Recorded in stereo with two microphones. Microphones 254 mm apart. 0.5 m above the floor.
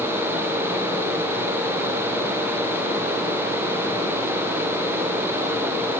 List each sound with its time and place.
Only background noise.